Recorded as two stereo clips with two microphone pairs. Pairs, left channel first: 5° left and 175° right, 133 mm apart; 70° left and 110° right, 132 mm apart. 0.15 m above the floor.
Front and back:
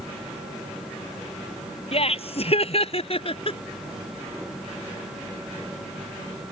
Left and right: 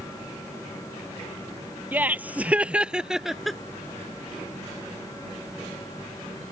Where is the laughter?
30° right; by 3.6 s 15° right.